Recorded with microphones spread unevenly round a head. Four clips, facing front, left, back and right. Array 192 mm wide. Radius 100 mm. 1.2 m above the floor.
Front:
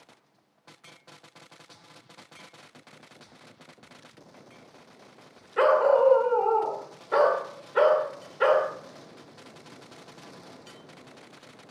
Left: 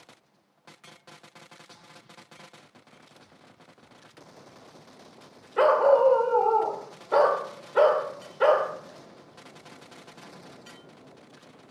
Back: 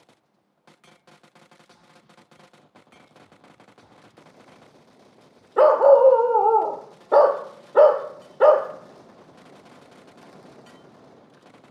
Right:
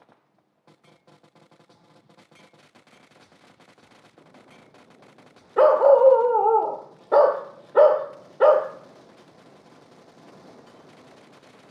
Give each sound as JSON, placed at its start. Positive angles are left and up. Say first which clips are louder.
{"t": 5.6, "sound": "a dog barking", "louder": "right 5 dB, back 7 dB", "azimuth_deg": -145, "distance_m": 1.2}